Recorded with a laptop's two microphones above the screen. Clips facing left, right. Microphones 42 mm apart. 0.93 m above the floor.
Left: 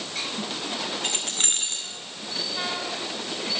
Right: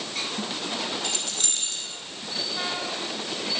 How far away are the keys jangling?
About 2 m.